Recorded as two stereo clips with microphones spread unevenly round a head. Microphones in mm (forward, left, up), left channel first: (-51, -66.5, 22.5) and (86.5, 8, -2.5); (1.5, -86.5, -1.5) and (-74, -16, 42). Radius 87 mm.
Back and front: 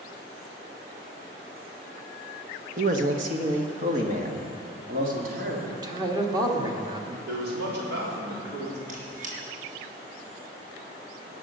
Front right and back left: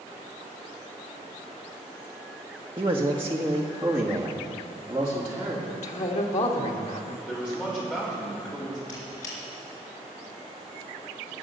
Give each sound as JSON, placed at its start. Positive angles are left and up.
{"t": 2.8, "sound": "a man speaking", "azimuth_deg": 75, "distance_m": 1.0}
{"t": 5.7, "sound": "a man speaking", "azimuth_deg": -35, "distance_m": 1.9}
{"t": 7.3, "sound": "a man speaking", "azimuth_deg": 35, "distance_m": 3.5}
{"t": 8.9, "sound": "a squeak", "azimuth_deg": -10, "distance_m": 4.0}